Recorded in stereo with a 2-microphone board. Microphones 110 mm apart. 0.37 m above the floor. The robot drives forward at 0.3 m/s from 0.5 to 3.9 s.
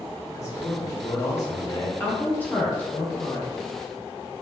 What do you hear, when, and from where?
0.3 s a man speaking: 30° left (ahead or behind), 0.8 m; by 1.9 s 25° left (ahead or behind), 1.0 m
2.0 s a woman speaking: 15° left (ahead or behind), 0.9 m; by 3.5 s 10° left (ahead or behind), 1.1 m